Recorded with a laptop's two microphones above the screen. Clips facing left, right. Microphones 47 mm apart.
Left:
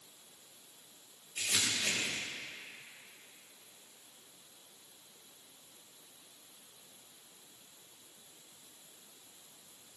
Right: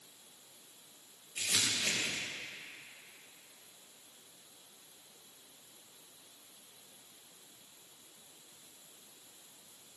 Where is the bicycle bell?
I don't hear a bicycle bell.